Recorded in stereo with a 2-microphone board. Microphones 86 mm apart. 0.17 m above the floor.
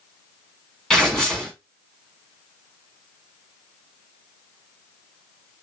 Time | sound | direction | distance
0.9 | tearing paper | 10° left (ahead or behind) | 1.9 m